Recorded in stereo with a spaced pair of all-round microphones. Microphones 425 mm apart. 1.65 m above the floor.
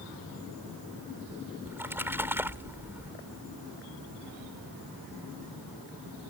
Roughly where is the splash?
Centre.